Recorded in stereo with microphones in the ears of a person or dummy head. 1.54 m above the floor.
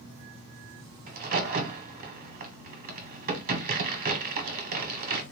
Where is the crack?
45° right (ahead or behind), 0.8 m.